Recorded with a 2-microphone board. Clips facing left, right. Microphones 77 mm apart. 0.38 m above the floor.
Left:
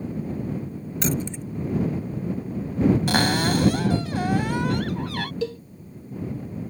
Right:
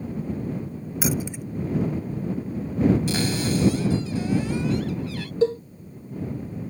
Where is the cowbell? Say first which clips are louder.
Right 11 dB; 30° right (ahead or behind).